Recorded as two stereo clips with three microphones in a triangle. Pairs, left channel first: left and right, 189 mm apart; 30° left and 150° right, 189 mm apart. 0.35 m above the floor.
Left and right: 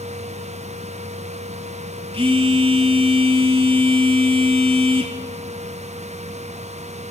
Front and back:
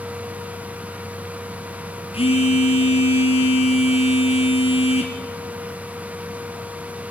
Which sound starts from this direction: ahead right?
A phone buzzing, at 2.1 s.